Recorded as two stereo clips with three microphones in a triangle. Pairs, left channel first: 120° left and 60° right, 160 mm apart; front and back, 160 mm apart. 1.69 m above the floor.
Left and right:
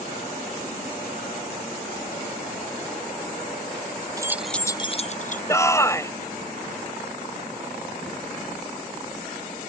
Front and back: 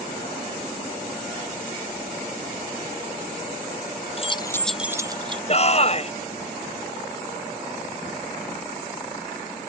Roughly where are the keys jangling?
Ahead.